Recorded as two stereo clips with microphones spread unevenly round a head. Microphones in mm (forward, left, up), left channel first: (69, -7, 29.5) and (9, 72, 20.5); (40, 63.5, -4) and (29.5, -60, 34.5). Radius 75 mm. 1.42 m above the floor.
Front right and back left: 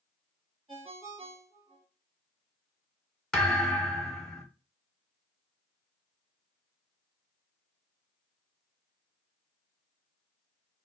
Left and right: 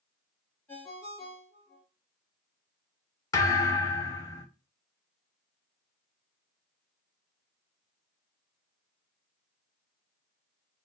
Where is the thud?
15° left, 0.7 m.